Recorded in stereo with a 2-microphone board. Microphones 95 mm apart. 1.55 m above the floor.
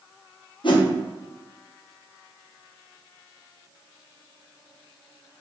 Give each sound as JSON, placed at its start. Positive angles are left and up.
{"t": 0.6, "sound": "a whoosh", "side_deg": 55, "distance_m": 1.0}